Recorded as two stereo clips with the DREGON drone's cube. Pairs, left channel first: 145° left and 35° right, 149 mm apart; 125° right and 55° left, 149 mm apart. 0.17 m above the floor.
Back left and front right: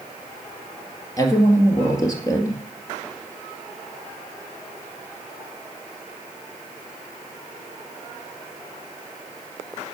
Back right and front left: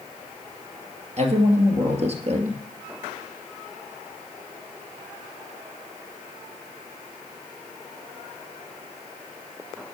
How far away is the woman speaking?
About 2 m.